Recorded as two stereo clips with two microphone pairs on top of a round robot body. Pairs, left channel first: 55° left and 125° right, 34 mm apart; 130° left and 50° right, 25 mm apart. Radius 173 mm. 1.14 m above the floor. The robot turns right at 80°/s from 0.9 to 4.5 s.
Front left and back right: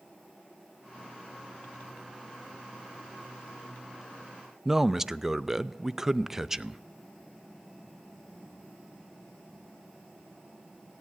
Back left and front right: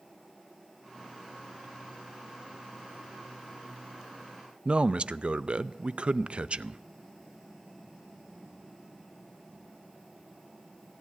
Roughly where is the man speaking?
Ahead right.